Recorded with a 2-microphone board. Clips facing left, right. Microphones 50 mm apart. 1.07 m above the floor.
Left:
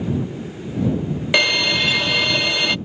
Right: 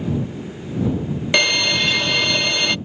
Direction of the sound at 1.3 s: 5° left (ahead or behind).